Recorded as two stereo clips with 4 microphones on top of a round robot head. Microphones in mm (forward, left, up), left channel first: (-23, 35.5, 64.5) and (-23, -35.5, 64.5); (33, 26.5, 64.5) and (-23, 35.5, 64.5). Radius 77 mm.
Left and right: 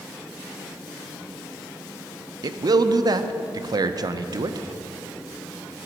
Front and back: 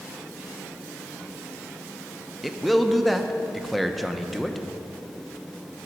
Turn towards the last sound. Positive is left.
turn(degrees=-100)